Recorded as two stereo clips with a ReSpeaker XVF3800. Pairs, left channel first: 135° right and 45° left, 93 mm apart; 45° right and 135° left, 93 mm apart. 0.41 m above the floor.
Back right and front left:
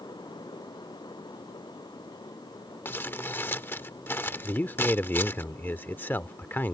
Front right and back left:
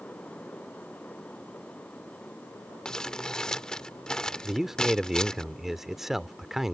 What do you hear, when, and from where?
2.9 s crumpling: 115° right
4.4 s a man speaking: 145° right